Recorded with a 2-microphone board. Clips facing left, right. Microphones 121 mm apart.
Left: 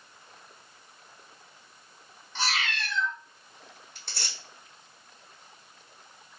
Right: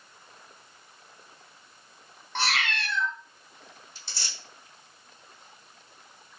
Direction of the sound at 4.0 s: 60° left (ahead or behind).